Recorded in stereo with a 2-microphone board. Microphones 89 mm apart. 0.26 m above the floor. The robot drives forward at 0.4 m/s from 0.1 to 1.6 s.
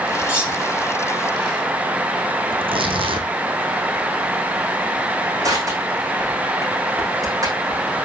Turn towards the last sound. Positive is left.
turn(degrees=-40)  # may be behind; listen again after turning